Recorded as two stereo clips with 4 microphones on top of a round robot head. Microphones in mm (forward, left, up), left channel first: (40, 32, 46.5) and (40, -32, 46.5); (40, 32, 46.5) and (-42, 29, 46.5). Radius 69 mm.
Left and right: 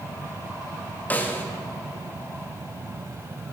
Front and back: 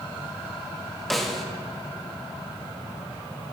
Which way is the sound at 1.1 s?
85° left.